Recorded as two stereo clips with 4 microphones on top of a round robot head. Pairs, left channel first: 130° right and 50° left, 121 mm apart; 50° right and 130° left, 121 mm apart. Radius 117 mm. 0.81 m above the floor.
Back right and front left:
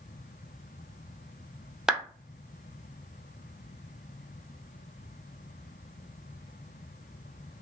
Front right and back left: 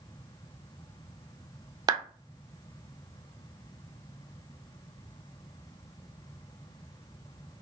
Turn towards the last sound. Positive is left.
turn(degrees=135)